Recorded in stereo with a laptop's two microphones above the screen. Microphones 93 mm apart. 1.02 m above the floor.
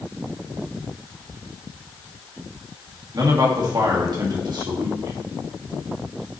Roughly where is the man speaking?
Right.